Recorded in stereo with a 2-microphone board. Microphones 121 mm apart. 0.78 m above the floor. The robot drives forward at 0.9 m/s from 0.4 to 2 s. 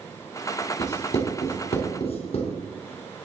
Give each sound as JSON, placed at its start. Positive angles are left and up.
{"t": 0.8, "sound": "writing", "side_deg": 70, "distance_m": 3.0}